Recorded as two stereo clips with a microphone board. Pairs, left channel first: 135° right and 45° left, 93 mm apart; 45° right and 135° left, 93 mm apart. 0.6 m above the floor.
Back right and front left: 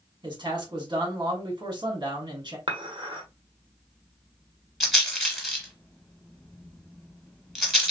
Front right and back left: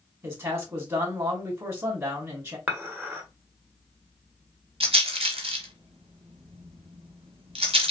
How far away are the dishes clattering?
About 1.2 m.